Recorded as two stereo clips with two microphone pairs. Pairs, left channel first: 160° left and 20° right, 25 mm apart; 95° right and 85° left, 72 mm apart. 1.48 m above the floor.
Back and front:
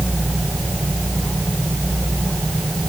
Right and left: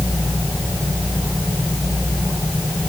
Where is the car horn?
I don't hear a car horn.